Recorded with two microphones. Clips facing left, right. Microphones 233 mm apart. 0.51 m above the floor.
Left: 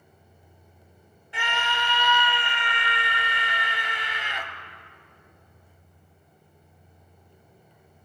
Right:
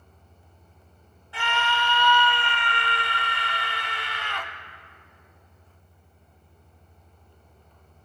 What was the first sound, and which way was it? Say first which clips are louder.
A scream: right 2 dB; 20° left (ahead or behind).